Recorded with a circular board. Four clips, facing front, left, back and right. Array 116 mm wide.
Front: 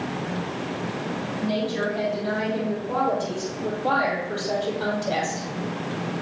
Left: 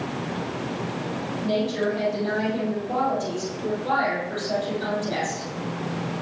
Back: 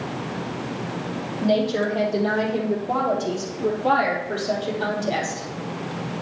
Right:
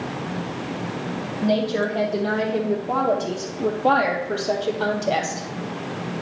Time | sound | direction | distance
1.4 | a woman speaking | 135° right | 3.5 m